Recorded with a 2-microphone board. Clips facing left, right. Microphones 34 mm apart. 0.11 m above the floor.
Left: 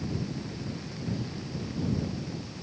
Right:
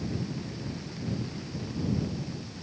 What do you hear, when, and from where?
Only background noise.